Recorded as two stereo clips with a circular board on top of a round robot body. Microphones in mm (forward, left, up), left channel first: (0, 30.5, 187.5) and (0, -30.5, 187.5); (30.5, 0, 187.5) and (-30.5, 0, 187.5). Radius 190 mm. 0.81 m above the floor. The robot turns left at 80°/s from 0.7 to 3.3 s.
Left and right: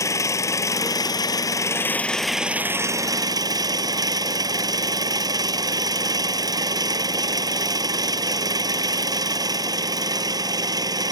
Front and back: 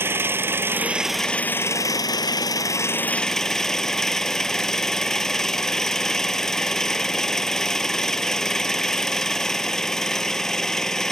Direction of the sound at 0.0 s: 125° left.